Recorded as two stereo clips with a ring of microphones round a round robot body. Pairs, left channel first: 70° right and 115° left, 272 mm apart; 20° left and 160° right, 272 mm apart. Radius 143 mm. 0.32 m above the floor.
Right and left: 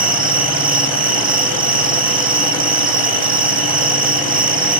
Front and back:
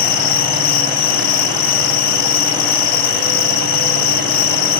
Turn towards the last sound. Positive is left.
turn(degrees=50)